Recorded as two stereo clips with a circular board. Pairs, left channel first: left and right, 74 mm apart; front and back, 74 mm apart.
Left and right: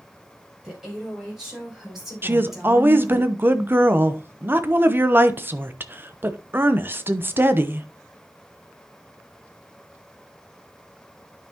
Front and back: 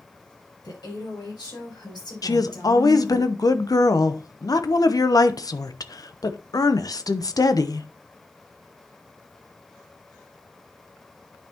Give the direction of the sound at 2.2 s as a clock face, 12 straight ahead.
1 o'clock.